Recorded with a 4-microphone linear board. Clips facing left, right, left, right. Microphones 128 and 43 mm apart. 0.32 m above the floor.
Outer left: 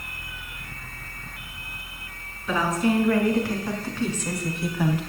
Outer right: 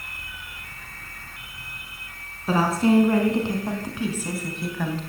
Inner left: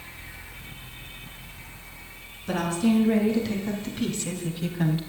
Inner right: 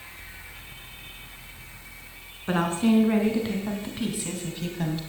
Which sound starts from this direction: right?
A woman speaking, at 2.5 s.